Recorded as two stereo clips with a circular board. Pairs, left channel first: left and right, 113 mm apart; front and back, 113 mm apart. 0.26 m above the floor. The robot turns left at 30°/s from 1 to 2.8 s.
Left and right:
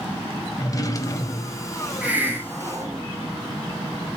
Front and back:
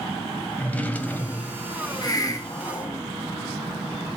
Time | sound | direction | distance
0.6 | a drawer | 65° left | 0.6 m
2.0 | a hiss | 20° right | 0.7 m